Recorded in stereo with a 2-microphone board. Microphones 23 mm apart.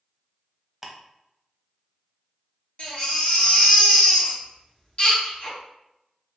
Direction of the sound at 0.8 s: 15° right (ahead or behind).